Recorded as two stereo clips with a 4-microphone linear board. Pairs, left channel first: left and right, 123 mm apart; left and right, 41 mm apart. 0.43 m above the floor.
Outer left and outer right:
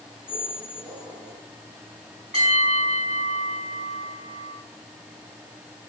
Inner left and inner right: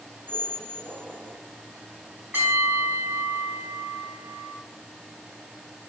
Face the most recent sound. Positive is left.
turn(degrees=-60)  # may be behind; listen again after turning